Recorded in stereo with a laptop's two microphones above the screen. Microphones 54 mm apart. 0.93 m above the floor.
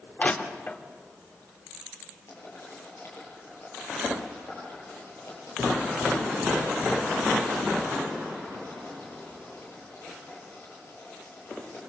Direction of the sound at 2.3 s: 50° left (ahead or behind).